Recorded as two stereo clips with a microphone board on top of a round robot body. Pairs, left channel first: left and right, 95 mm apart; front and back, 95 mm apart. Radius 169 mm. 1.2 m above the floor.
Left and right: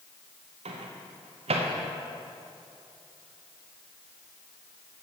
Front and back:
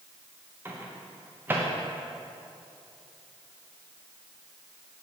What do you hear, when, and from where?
0.7 s a microwave: 110° right, 0.6 m